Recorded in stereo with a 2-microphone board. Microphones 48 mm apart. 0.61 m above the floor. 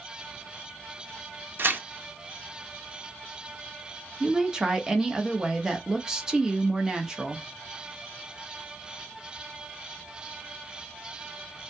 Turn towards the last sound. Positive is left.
turn(degrees=-15)  # may be behind; listen again after turning